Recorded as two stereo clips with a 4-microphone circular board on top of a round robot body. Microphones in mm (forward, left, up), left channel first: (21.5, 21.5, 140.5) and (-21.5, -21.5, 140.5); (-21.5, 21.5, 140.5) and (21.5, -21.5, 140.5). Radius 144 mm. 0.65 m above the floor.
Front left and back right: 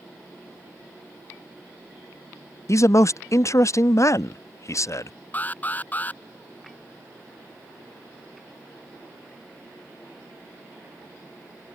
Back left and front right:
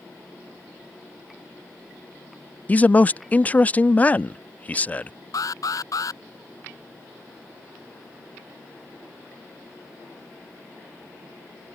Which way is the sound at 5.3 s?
110° left.